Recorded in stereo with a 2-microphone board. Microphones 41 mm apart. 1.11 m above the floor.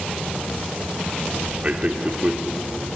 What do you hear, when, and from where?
1.6 s a man speaking: 30° right (ahead or behind), 2.5 m